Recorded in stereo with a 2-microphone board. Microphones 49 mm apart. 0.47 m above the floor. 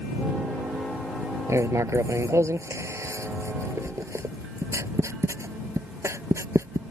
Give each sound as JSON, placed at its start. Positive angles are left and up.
{"t": 1.5, "sound": "writing", "side_deg": -85}